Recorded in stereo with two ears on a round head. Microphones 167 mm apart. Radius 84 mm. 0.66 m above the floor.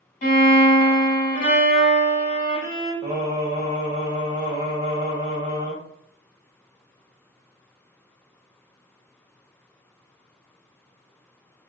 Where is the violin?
40° left (ahead or behind), 1.6 m.